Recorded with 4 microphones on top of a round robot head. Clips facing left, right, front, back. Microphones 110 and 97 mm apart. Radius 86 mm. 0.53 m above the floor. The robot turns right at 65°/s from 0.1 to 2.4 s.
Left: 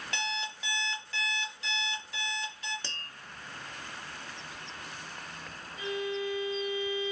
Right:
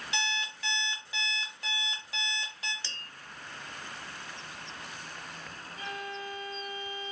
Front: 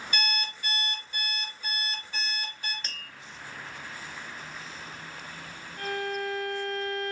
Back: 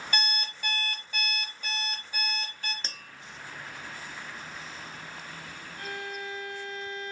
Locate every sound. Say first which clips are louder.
0.1 s an alarm clock: right 1 dB, even; 130° left, 1.2 m; by 2.7 s 85° right, 1.2 m
2.8 s tapping: left 3 dB, even; 120° left, 0.7 m
5.8 s a violin: left 6 dB, front 7 dB; 35° right, 1.9 m